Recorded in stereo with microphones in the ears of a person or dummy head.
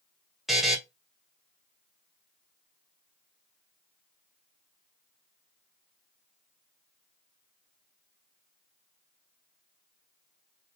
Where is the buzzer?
5° right (ahead or behind), 0.5 m.